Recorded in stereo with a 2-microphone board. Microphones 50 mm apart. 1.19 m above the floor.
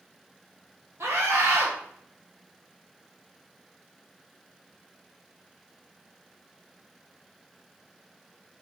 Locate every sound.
1.0 s a scream: 60° right (ahead or behind), 0.8 m